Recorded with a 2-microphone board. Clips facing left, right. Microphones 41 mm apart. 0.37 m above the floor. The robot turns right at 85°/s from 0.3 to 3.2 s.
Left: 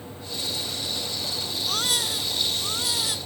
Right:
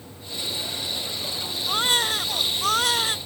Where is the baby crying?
165° right; by 3.2 s 35° right.